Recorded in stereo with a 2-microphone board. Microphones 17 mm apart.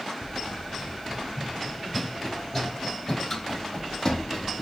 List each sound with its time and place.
0.2 s running footsteps: 25° right (ahead or behind), 0.9 m; by 4.6 s 45° left (ahead or behind), 2.5 m